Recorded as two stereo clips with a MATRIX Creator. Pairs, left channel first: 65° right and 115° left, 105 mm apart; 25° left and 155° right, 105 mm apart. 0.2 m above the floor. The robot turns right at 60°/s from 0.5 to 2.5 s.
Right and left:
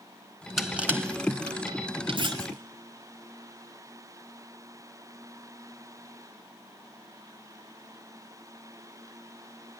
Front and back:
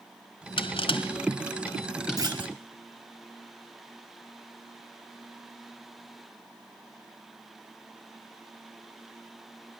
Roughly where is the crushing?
Ahead.